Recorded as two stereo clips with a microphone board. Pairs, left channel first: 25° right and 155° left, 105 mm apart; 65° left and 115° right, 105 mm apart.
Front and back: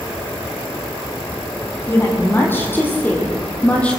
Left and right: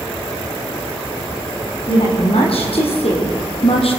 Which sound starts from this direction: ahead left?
A woman speaking, at 1.9 s.